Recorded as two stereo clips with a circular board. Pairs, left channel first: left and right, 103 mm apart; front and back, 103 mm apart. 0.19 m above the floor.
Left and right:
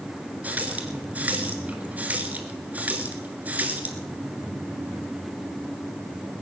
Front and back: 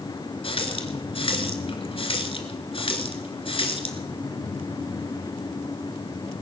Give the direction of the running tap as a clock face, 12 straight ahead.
1 o'clock.